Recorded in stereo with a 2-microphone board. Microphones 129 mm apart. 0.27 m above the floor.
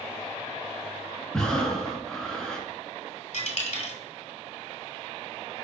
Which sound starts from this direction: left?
A dropped coin, at 3.3 s.